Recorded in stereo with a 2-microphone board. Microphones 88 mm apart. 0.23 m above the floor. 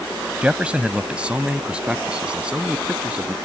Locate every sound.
0.4 s a man speaking: 15° right (ahead or behind); by 3.4 s 10° right (ahead or behind)